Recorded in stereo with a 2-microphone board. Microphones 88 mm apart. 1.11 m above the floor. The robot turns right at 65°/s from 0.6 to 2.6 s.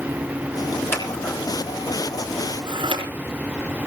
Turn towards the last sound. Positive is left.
turn(degrees=-80)